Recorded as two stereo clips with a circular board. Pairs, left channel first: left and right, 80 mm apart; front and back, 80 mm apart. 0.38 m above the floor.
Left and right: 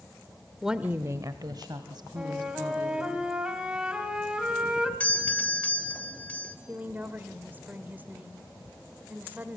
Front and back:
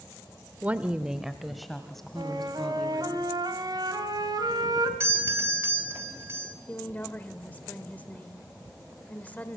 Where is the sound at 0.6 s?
175° right, 0.8 m; by 3.2 s 80° right, 3.5 m.